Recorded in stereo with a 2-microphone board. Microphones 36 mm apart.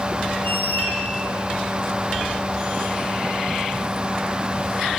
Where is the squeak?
55° left (ahead or behind), 3 m.